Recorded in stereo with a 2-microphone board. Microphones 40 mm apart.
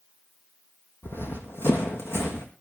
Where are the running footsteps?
70° left (ahead or behind), 1.8 m; by 2.5 s 80° left, 3 m.